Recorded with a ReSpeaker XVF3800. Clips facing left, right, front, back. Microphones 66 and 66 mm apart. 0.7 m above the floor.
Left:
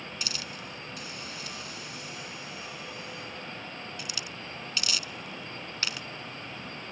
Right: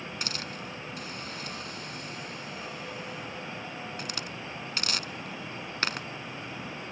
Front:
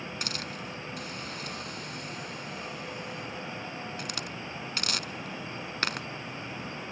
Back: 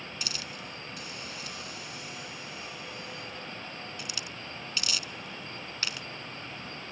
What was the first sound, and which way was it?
A hiss, 40° right.